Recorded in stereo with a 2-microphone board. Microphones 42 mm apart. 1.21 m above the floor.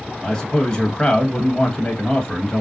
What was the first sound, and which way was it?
A man speaking, 15° left (ahead or behind).